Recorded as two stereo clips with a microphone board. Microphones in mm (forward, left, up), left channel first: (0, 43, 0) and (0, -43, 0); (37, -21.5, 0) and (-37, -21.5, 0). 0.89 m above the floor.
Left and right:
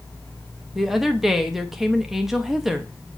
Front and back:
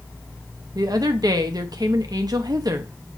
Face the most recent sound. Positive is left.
turn(degrees=-175)